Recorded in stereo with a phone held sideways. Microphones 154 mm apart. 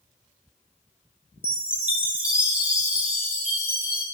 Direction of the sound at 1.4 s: 10° right (ahead or behind).